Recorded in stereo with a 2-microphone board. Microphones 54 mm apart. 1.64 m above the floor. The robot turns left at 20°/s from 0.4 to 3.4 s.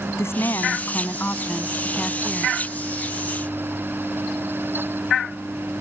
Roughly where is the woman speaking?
Ahead left.